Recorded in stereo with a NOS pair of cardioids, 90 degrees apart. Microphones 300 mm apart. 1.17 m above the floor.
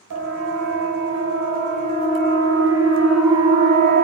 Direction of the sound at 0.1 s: 60° right.